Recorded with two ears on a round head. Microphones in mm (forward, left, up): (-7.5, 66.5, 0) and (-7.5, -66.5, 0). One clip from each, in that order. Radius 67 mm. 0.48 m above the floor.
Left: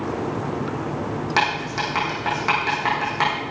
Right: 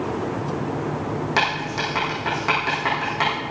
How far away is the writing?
About 7 m.